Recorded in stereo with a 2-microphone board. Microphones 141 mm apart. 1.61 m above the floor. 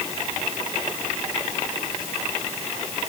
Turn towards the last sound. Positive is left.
No sound to turn to.